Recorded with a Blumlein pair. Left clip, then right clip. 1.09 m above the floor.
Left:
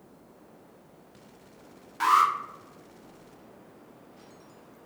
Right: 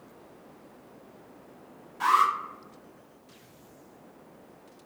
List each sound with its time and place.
2.0 s an alarm: 60° left, 0.7 m